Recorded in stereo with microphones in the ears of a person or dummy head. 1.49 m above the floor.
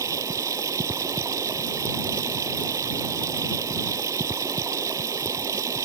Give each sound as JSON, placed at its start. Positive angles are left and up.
{"t": 0.0, "sound": "running water", "side_deg": -20}